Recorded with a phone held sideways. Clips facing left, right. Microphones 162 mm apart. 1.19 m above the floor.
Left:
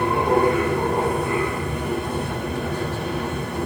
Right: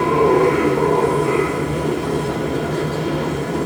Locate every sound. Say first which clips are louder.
0.0 s a machine running: right 5 dB; 85° right, 0.9 m